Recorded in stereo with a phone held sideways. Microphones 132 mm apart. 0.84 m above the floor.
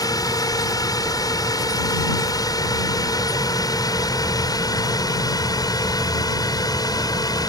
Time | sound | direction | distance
0.0 | a drone | 25° left (ahead or behind) | ?